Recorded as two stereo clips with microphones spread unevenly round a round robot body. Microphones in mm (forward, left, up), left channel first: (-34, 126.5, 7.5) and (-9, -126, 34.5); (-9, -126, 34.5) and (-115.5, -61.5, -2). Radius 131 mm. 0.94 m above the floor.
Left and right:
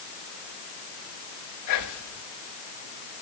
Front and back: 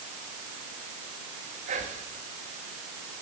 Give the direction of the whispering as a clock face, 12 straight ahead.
9 o'clock.